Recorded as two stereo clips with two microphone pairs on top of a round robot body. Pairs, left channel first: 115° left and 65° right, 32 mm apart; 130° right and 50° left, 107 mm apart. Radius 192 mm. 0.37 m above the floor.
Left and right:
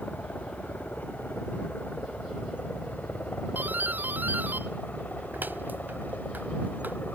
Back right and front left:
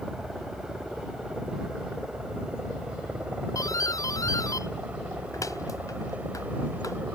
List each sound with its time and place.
0.0 s a helicopter: 135° left; by 7.2 s 125° left
3.5 s a doorbell: 75° right